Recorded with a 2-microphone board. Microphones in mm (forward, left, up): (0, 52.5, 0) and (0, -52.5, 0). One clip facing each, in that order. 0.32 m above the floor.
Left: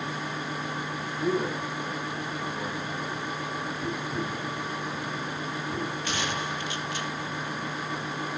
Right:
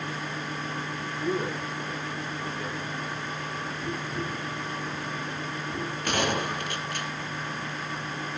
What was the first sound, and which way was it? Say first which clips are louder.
A man speaking: left 2 dB; 80° left.